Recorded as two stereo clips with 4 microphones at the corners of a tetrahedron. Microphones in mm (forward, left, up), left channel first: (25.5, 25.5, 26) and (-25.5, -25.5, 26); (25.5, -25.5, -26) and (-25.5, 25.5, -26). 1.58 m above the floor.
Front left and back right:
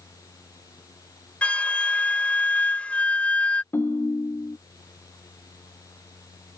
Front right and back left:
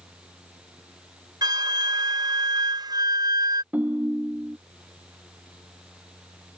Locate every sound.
1.4 s a flute: 120° left
3.7 s a ringtone: 80° left